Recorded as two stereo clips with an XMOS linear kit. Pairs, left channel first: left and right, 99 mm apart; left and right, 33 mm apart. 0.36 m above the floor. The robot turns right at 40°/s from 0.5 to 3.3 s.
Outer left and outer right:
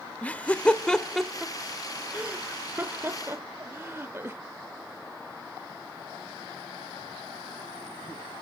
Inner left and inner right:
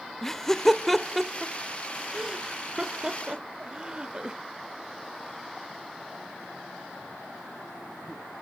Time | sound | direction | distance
0.2 | laughter | 15° left (ahead or behind) | 0.8 m